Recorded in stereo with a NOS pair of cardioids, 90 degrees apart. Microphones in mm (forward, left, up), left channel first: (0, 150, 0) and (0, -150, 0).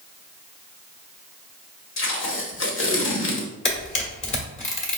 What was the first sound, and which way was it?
Tape being pulled, 40° left.